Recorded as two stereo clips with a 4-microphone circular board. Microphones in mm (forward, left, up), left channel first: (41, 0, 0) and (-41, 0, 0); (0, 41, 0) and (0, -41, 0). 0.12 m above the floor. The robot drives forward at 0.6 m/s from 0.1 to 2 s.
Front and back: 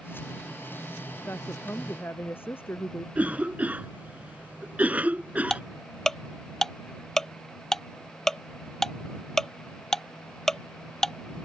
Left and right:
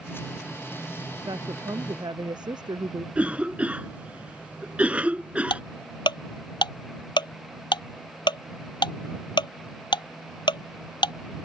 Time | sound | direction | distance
1.2 | a woman speaking | 60° right | ?
3.1 | a cough | 140° right | ?
5.5 | ticking | 85° left | ?